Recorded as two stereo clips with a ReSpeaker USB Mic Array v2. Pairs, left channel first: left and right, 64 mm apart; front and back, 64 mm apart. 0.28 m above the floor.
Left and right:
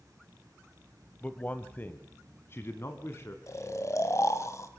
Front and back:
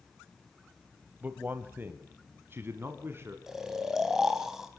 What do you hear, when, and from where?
1.2 s a man speaking: 140° left, 1.0 m; by 3.4 s 130° left, 2 m
3.5 s snoring: 100° left, 2 m